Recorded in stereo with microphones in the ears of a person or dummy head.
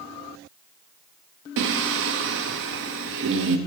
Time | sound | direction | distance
1.6 | singing | 65° right (ahead or behind) | 0.6 m